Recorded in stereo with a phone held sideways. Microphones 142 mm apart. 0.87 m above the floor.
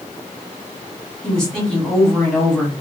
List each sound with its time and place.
1.2 s a woman speaking: 5° left (ahead or behind), 1.2 m